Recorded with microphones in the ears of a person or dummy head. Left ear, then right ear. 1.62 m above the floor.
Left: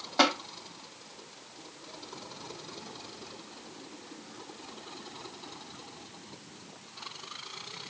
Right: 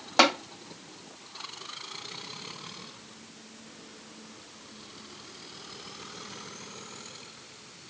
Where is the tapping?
55° right (ahead or behind), 1.6 m.